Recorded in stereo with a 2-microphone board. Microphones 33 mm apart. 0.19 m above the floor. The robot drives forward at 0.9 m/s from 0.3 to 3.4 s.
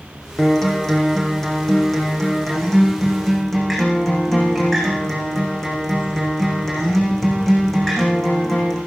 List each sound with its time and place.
0.4 s a guitar: 10° left (ahead or behind), 6.5 m